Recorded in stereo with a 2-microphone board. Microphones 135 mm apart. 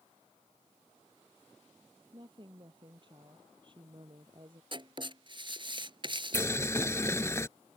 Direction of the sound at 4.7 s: 40° right (ahead or behind).